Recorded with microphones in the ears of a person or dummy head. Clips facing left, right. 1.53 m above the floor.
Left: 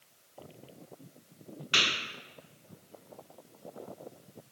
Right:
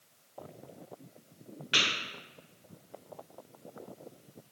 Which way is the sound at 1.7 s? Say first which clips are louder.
Even; 20° right (ahead or behind).